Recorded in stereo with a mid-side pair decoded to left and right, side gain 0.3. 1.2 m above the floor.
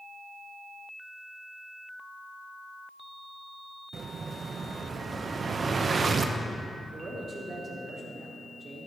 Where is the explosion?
60° right, 0.8 m.